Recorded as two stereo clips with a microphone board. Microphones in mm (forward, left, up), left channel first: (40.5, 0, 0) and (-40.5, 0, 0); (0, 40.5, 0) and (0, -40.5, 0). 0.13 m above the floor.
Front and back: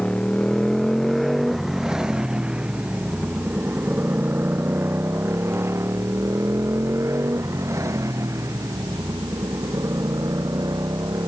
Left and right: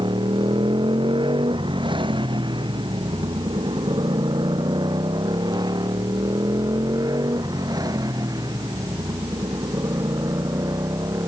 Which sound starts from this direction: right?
A motorcycle, at 0.0 s.